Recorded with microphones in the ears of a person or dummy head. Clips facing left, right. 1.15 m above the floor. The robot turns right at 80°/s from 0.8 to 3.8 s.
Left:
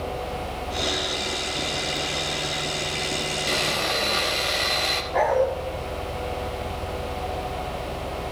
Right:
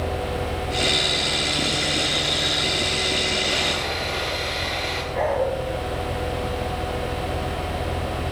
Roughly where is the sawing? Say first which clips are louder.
Even; left.